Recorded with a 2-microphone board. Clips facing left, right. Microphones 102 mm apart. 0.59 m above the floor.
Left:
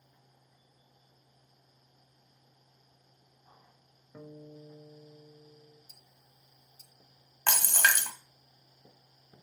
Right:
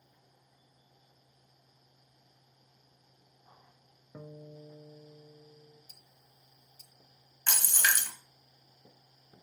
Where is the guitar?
15° right (ahead or behind), 0.6 m.